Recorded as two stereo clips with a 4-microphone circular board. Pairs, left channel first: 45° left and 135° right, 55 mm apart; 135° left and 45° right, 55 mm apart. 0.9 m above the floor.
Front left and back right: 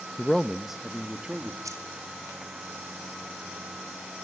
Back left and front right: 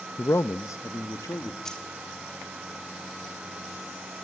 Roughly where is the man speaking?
Behind left.